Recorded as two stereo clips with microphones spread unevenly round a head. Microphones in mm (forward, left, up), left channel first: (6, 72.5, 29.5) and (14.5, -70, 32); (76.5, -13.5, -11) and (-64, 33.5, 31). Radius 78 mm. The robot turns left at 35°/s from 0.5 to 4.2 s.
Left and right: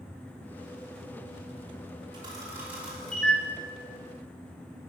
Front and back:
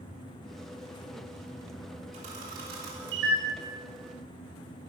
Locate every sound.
2.1 s a camera shutter: 145° right, 3 m; by 3.4 s 170° left, 3 m